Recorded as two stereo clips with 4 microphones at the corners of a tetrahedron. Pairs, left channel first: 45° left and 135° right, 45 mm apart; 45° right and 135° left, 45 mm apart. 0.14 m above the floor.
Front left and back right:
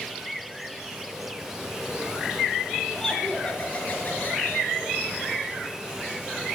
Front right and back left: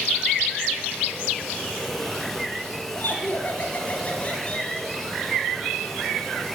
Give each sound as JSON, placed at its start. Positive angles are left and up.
{"t": 2.9, "sound": "laughter", "azimuth_deg": -25, "distance_m": 2.5}